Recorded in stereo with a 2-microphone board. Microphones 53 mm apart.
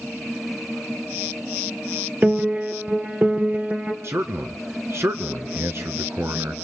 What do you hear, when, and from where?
2.2 s a piano: 30° right (ahead or behind), 1.3 m
4.0 s a man speaking: 55° right (ahead or behind), 1.8 m